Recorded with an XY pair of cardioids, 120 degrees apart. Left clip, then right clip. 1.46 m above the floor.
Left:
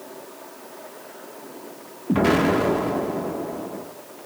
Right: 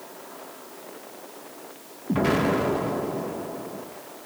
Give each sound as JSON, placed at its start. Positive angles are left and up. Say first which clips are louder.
{"t": 2.1, "sound": "an explosion", "louder": "left 4 dB", "azimuth_deg": 20, "distance_m": 1.7}